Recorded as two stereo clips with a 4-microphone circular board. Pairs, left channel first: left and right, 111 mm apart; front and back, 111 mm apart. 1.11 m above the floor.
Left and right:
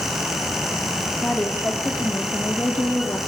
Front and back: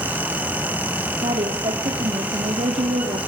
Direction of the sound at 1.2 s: 165° left.